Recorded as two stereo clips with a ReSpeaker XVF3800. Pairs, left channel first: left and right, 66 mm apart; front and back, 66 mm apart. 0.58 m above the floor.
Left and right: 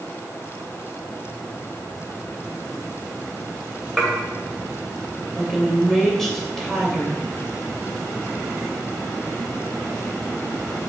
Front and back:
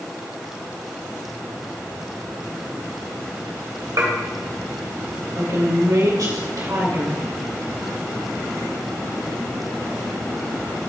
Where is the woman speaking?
175° left, 2.5 m.